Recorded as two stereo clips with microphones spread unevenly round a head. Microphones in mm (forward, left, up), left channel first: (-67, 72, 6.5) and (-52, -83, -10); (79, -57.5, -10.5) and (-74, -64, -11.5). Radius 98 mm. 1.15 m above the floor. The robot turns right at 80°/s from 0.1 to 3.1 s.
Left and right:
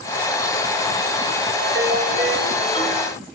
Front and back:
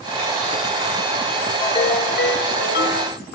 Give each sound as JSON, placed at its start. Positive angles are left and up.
{"t": 1.6, "sound": "a ringtone", "azimuth_deg": -60, "distance_m": 3.0}